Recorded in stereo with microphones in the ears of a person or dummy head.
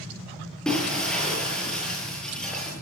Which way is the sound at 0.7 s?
5° left (ahead or behind).